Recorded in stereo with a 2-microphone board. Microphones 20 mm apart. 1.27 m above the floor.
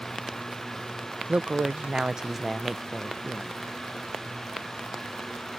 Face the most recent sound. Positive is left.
turn(degrees=15)  # may be behind; listen again after turning